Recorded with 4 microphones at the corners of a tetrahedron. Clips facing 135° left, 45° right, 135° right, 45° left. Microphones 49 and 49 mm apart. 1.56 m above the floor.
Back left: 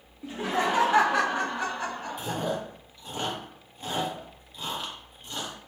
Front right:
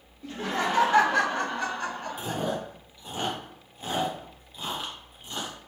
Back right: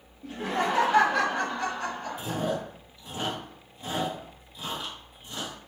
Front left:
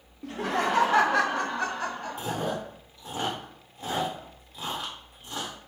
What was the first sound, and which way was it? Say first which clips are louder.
Laughter: back left 1 dB, front left 1 dB; 60° left.